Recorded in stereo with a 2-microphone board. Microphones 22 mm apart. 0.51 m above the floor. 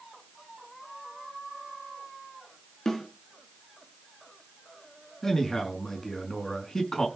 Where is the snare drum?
30° left (ahead or behind), 4.5 m.